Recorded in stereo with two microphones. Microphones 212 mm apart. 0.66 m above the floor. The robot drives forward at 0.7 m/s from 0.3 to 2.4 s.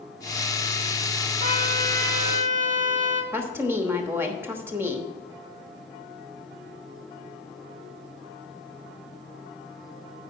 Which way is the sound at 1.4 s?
40° right (ahead or behind).